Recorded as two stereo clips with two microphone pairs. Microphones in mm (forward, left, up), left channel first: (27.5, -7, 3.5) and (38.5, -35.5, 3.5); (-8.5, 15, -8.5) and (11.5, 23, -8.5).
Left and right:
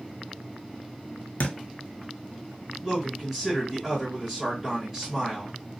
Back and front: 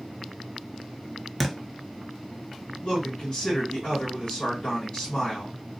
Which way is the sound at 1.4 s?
105° left.